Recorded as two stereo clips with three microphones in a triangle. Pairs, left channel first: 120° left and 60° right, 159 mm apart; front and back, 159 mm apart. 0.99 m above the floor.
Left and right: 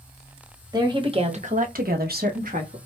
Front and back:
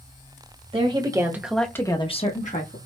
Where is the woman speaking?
125° right, 1.4 m; by 2.8 s 25° right, 1.4 m.